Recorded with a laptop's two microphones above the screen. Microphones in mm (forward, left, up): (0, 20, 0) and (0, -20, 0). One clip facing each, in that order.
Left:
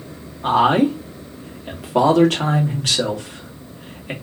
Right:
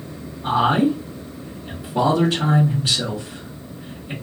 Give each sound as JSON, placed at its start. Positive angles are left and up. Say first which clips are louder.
{"t": 0.4, "sound": "a man speaking", "louder": "left 2 dB", "side_deg": 75, "distance_m": 1.6}